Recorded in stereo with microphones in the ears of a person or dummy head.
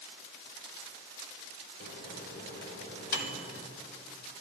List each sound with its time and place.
1.8 s a microwave: 50° left (ahead or behind), 1.5 m